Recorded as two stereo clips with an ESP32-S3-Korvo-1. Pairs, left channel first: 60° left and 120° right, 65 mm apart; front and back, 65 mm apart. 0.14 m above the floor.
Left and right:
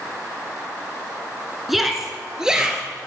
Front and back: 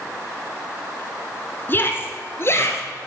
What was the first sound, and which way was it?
A shout, 35° right.